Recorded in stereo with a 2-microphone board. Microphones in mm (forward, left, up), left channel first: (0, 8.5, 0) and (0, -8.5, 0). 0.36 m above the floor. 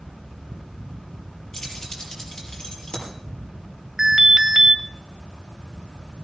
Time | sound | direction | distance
1.5 | keys jangling | 50° left (ahead or behind) | 6 m
4.0 | an alarm | 15° right (ahead or behind) | 1.5 m